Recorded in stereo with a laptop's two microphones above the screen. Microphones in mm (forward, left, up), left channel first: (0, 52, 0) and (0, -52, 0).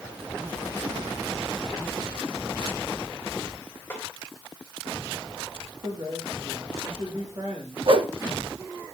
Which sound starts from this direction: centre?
A snare drum, at 3.9 s.